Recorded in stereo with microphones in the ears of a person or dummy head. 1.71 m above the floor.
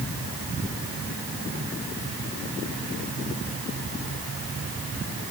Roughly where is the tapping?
I don't hear tapping.